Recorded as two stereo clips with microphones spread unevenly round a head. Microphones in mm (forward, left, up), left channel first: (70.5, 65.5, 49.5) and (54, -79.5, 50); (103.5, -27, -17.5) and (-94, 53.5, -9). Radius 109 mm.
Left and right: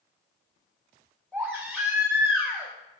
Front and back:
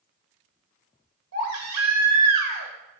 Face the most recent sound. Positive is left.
turn(degrees=170)